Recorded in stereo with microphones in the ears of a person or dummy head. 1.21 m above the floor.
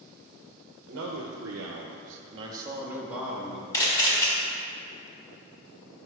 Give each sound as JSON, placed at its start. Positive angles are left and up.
{"t": 0.9, "sound": "a man speaking", "side_deg": -60, "distance_m": 0.8}
{"t": 3.7, "sound": "a camera shutter", "side_deg": 20, "distance_m": 1.8}